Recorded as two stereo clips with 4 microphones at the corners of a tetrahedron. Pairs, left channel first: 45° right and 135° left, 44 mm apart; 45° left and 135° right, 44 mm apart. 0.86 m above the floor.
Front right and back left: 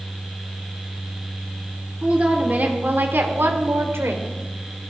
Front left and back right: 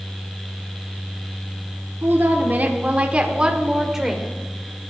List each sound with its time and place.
2.0 s a woman speaking: 165° right, 1.9 m; by 4.3 s 140° left, 2.5 m